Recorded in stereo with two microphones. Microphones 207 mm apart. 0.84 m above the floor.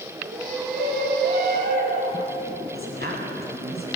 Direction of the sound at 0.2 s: 45° right (ahead or behind).